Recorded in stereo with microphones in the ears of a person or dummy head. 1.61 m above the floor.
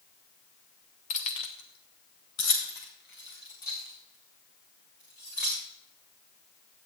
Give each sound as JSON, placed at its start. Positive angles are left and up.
{"t": 1.1, "sound": "keys jangling", "side_deg": 35, "distance_m": 0.9}